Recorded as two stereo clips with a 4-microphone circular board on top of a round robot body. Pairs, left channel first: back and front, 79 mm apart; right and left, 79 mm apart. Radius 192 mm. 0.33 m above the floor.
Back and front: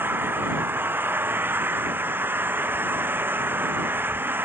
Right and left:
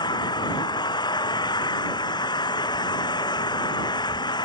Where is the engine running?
65° right.